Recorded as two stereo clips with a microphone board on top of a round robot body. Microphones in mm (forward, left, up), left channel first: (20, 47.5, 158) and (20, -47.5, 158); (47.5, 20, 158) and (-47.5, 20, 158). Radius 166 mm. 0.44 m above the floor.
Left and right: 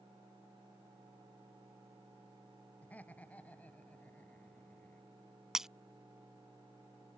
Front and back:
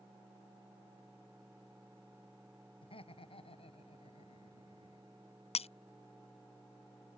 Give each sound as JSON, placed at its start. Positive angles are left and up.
{"t": 2.8, "sound": "laughter", "azimuth_deg": 15}
{"t": 5.5, "sound": "breaking glass", "azimuth_deg": -5}